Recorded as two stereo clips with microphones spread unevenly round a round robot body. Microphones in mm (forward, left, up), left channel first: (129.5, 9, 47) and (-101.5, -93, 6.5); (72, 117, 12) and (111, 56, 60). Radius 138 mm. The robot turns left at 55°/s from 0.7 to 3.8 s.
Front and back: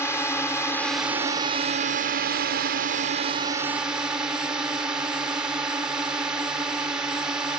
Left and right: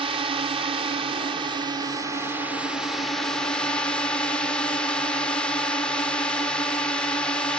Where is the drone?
60° right; by 7.6 s 130° left.